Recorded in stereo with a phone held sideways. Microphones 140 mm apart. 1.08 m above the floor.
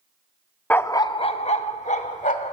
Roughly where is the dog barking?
Centre.